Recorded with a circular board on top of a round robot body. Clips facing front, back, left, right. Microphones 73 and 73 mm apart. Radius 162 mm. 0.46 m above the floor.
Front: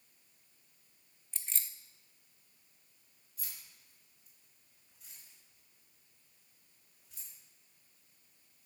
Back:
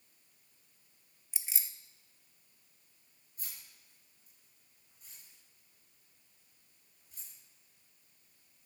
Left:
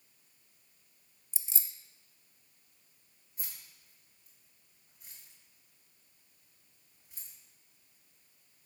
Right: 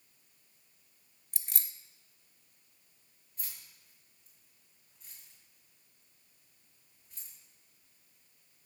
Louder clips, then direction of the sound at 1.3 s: Back 1 dB, right 1 dB; 100° right.